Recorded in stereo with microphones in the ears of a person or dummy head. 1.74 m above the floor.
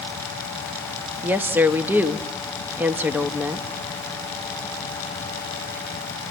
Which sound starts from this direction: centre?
A woman speaking, at 1.2 s.